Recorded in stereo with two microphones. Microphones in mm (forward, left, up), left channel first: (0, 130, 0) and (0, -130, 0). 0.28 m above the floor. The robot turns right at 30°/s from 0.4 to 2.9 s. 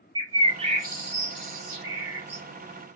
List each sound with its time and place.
0.1 s a bird: 15° right (ahead or behind), 1.3 m; by 2.4 s 65° right (ahead or behind), 1.3 m